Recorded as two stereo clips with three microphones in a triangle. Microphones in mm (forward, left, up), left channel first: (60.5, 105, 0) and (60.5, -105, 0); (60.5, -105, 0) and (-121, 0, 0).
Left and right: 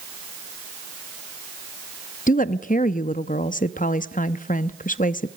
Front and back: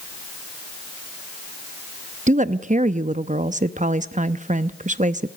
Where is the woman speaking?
115° left, 0.6 m.